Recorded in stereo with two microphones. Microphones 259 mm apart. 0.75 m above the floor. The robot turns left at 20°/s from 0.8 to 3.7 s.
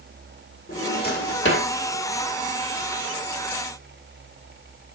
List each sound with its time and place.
0.7 s a drawer: 35° left (ahead or behind), 1.8 m; by 1.7 s 55° left (ahead or behind), 1.8 m